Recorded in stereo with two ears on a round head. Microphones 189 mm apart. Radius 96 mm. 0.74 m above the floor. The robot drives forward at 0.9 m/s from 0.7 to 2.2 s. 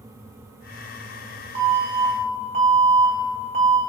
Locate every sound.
1.6 s an alarm: 25° right (ahead or behind), 4 m; by 3.8 s 30° right (ahead or behind), 3.5 m